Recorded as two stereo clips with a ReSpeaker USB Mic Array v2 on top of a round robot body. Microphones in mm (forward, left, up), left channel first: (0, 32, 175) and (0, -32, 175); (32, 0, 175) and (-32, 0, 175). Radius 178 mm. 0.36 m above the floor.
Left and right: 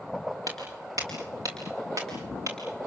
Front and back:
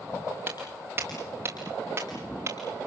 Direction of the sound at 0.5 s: 120° right.